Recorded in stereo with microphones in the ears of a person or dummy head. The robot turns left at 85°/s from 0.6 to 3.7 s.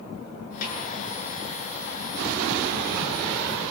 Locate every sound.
0.6 s a snare drum: 45° left (ahead or behind), 9.5 m; by 0.8 s 30° left (ahead or behind), 9.5 m